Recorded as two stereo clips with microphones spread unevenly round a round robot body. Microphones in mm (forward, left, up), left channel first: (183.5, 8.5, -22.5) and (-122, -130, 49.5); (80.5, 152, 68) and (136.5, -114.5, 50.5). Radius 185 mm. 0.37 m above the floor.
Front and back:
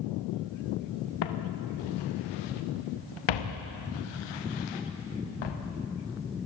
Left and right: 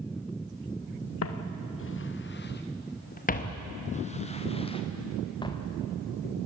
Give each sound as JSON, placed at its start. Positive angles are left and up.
{"t": 1.2, "sound": "footsteps", "azimuth_deg": 70, "distance_m": 2.0}